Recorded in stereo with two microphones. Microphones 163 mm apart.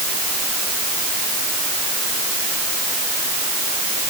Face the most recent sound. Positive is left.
No sound to turn to.